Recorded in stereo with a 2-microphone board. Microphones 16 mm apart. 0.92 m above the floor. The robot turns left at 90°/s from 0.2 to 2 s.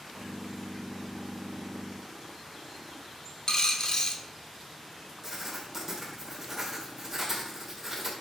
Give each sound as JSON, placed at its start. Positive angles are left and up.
{"t": 3.5, "sound": "a dropped coin", "side_deg": 35, "distance_m": 0.7}
{"t": 5.2, "sound": "writing", "side_deg": -20, "distance_m": 1.5}